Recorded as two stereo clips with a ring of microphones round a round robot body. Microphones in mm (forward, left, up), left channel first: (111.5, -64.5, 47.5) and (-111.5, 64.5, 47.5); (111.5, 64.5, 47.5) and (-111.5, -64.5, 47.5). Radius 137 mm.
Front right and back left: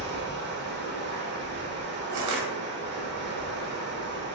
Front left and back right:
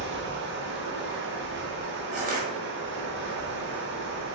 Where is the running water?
Straight behind, 0.8 m.